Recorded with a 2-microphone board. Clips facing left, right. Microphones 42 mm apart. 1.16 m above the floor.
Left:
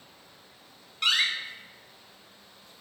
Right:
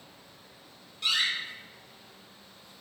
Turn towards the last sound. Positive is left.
turn(degrees=65)  # may be behind; listen again after turning